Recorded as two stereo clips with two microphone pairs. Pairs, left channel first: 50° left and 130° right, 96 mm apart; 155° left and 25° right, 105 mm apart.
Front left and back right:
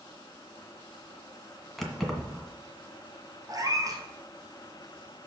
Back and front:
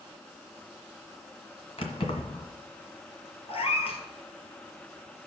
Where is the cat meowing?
Straight behind, 1.8 m.